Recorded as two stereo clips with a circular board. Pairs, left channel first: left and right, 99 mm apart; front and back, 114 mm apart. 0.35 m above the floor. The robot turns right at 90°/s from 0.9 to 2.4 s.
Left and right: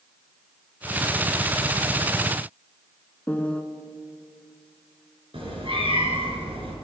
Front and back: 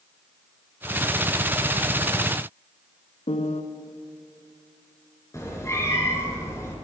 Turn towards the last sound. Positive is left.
turn(degrees=-65)